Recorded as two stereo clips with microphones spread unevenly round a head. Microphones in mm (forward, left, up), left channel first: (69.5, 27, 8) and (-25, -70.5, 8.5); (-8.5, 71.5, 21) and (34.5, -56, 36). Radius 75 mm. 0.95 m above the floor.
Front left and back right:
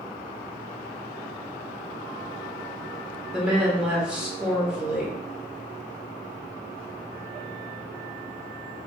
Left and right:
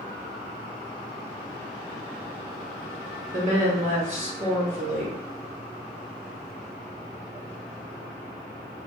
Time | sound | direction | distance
3.3 | a woman speaking | 50° right | 1.1 m